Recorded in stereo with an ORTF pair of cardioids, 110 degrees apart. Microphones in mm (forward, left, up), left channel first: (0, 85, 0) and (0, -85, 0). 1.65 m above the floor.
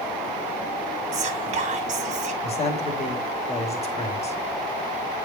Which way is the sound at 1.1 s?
45° right.